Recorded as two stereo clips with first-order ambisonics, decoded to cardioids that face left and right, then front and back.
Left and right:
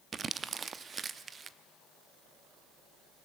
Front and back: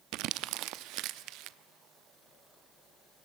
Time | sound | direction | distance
0.1 | crumpling | 155° right | 0.6 m